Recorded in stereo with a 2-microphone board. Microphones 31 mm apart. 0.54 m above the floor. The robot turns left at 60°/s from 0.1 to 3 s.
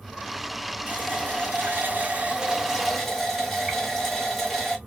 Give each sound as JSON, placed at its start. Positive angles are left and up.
{"t": 0.9, "sound": "a running tap", "azimuth_deg": -55, "distance_m": 1.6}